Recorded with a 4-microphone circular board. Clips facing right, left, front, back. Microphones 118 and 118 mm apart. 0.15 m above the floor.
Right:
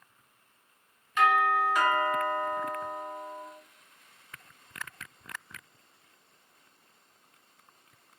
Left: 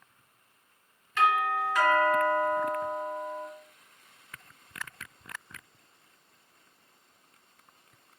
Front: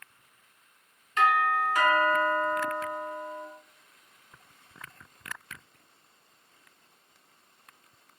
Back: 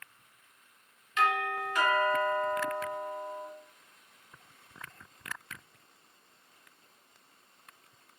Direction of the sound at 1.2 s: 25° right.